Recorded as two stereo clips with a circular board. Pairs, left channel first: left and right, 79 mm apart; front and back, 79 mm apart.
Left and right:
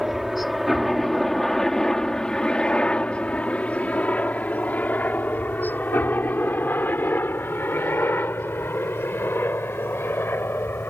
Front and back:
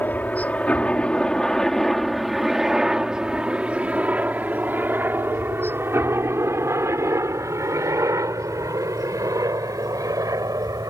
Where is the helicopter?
5° right; by 10.9 s 150° left.